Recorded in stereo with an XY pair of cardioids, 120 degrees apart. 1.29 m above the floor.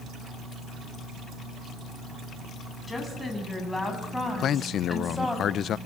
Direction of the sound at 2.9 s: 15° left.